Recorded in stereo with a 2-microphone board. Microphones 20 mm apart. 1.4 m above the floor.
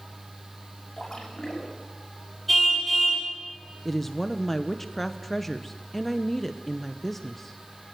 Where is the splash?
30° left (ahead or behind), 7 m.